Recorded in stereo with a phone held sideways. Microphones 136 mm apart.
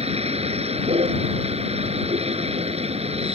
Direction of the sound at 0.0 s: 50° right (ahead or behind).